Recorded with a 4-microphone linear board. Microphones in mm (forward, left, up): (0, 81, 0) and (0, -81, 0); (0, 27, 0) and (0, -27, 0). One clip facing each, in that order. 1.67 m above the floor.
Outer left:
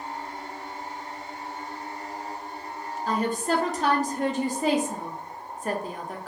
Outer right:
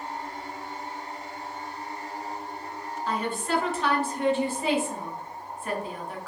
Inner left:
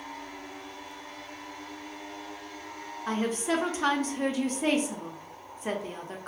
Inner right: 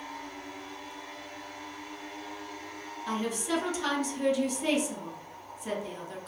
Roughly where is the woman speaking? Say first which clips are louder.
Outer left 3 dB, inner left 3 dB; left.